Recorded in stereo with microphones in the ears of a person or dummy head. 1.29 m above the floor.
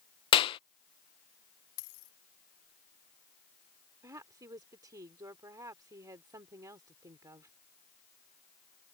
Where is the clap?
30° left (ahead or behind).